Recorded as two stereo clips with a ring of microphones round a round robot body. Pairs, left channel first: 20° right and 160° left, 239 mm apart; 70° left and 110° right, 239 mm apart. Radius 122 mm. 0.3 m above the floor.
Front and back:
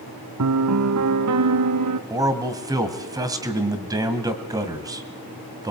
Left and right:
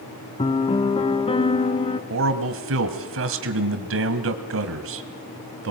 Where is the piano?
135° left, 1.1 m.